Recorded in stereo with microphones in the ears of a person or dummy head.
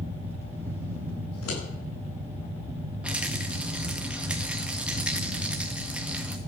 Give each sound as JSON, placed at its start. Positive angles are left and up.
{"t": 0.0, "sound": "a fan", "side_deg": -10, "distance_m": 2.0}
{"t": 1.3, "sound": "scissors", "side_deg": 80, "distance_m": 9.5}
{"t": 3.0, "sound": "a rattle", "side_deg": -5, "distance_m": 1.3}